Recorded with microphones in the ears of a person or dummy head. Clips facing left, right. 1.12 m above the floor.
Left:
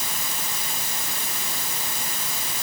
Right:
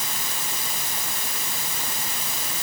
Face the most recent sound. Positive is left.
No sound to turn to.